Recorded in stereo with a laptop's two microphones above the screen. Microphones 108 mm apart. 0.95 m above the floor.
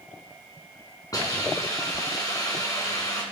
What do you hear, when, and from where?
1.1 s a hiss: 35° left (ahead or behind), 4 m